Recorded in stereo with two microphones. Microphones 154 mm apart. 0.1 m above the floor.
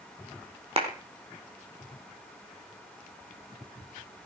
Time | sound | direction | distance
0.8 | a clap | 40° right (ahead or behind) | 5 m